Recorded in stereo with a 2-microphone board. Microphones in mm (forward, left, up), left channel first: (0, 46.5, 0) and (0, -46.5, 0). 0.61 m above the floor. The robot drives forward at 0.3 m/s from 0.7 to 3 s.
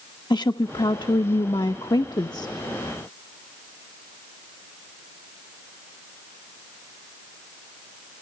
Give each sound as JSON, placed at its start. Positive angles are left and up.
{"t": 0.3, "sound": "a woman speaking", "side_deg": 50, "distance_m": 0.9}